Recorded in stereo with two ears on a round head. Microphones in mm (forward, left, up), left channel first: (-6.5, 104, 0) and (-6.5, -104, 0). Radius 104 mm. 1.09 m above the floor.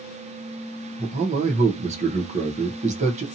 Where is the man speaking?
30° right (ahead or behind), 0.6 m.